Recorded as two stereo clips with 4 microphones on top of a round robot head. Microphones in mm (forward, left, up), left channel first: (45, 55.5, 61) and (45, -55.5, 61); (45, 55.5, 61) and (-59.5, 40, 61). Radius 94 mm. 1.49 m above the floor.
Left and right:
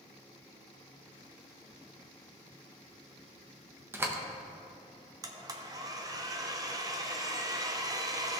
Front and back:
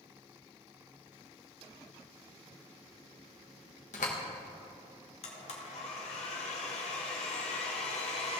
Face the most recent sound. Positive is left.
turn(degrees=-30)